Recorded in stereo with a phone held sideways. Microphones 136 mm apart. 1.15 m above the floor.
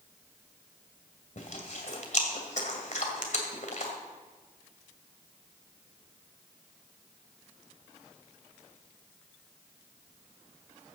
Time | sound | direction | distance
1.4 | chewing | 65° left (ahead or behind) | 2 m